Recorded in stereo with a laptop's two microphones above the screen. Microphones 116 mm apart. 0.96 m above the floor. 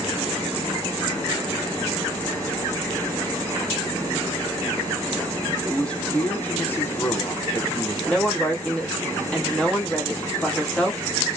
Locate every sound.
5.6 s a man speaking: 5° left (ahead or behind), 1.2 m; by 8.0 s 25° left (ahead or behind), 0.7 m
8.1 s a woman speaking: 5° left (ahead or behind), 1.0 m